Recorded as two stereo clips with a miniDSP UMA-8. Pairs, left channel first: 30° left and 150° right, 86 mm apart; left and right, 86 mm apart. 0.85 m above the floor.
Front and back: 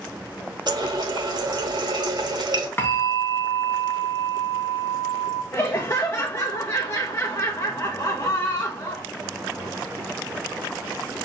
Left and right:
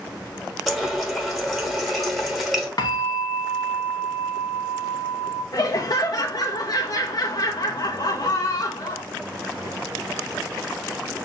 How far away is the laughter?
About 0.6 m.